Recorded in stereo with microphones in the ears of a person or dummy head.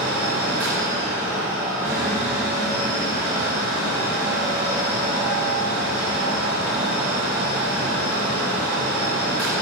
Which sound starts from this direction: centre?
A fan, at 0.0 s.